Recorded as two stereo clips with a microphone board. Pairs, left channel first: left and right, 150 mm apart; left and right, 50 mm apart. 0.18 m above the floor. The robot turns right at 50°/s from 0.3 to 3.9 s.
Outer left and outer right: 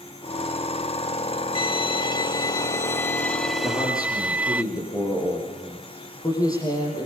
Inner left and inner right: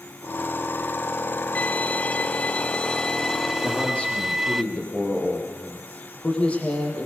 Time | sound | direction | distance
1.6 | a violin | 80° left | 0.7 m
3.6 | a man speaking | 10° left (ahead or behind) | 6.5 m